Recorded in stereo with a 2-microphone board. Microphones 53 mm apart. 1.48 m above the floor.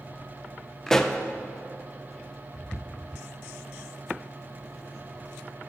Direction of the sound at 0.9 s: 10° left (ahead or behind).